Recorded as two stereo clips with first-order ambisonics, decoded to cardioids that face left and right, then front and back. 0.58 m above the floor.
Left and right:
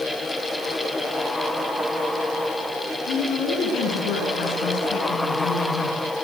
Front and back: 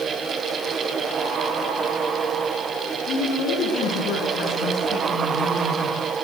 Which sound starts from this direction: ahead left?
A woman speaking, at 3.1 s.